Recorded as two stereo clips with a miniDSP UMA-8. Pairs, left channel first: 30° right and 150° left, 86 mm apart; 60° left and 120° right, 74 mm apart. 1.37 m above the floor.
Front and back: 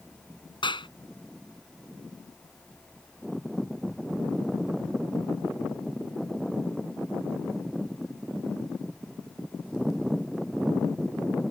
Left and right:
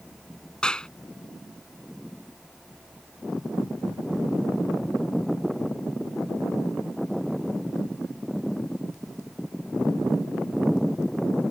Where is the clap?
20° right.